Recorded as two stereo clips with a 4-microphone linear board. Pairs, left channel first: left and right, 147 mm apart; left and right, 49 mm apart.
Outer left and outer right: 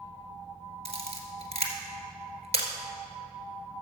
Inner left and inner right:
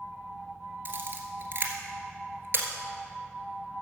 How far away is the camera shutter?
About 1.6 m.